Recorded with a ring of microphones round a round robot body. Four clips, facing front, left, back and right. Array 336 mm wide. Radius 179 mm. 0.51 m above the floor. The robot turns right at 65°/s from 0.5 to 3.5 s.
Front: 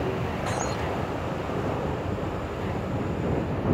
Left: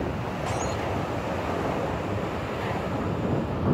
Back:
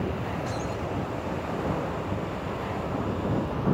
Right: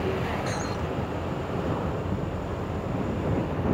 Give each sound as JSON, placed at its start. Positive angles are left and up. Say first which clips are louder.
{"t": 0.5, "sound": "breaking glass", "louder": "left 2 dB, front 3 dB", "azimuth_deg": 10}